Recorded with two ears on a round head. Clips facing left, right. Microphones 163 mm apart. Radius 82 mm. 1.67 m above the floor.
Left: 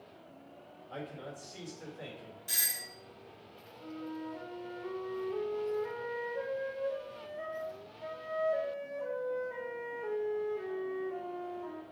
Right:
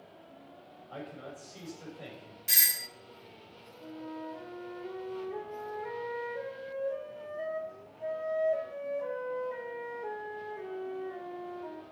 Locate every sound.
0.9 s a man speaking: 20° left (ahead or behind), 6.5 m
2.5 s a doorbell: 25° right (ahead or behind), 0.6 m
3.8 s a flute: 5° left (ahead or behind), 4 m